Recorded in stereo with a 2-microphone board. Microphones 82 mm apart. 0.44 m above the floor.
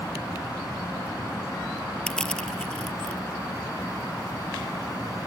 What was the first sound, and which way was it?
Crushing, 10° left (ahead or behind).